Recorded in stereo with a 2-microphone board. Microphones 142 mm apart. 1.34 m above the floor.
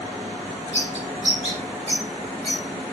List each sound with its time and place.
0.7 s a bird: 45° right (ahead or behind), 3 m